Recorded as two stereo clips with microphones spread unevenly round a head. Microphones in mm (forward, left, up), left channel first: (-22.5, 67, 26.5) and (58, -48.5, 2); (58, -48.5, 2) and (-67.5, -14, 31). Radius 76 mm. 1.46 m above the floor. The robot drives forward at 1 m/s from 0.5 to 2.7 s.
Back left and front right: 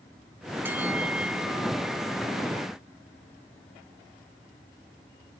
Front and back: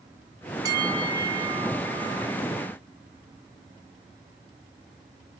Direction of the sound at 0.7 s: 135° right.